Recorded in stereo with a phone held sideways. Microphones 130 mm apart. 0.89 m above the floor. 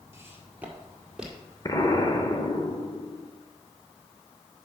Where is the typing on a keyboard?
No typing on a keyboard in this recording.